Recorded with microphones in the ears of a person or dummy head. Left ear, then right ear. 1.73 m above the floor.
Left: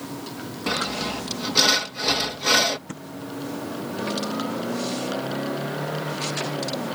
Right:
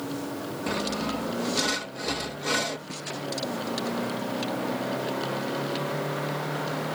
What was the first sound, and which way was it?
Sawing, 25° left (ahead or behind).